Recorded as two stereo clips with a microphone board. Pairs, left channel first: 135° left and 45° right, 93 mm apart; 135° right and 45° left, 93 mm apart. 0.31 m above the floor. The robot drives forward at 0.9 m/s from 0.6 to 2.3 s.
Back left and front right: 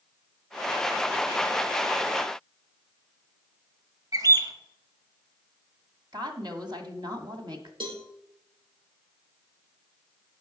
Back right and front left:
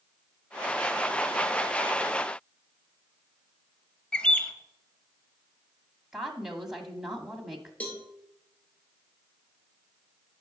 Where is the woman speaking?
40° right, 1.8 m.